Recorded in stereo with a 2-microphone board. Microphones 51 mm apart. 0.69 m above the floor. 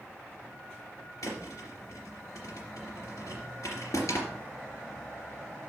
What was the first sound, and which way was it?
A thud, 75° left (ahead or behind).